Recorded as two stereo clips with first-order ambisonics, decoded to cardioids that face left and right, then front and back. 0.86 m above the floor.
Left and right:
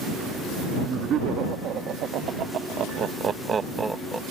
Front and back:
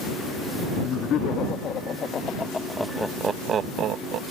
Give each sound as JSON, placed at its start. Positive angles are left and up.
{"t": 0.8, "sound": "laughter", "azimuth_deg": -40}